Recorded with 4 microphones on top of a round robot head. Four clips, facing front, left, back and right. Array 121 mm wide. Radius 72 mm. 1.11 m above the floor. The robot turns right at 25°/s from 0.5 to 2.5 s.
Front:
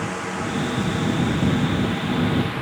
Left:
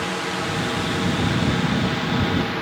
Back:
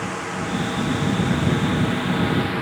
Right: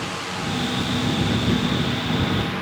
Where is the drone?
90° left; by 2.6 s 140° left.